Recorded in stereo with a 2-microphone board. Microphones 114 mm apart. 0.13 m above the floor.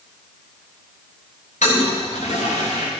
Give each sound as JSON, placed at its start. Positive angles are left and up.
{"t": 1.6, "sound": "a toilet flushing", "side_deg": 85, "distance_m": 3.0}